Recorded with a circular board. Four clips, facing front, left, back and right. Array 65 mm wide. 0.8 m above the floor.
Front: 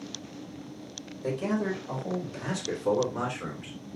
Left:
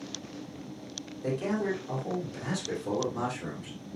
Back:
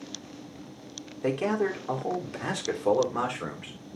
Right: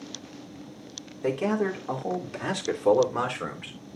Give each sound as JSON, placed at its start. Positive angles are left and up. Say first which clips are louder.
{"t": 1.2, "sound": "a man speaking", "louder": "right 4 dB, back 3 dB", "azimuth_deg": -145, "distance_m": 2.5}